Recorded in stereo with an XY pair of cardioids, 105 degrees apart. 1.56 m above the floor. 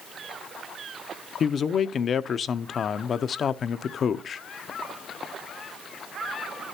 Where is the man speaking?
45° left, 0.7 m.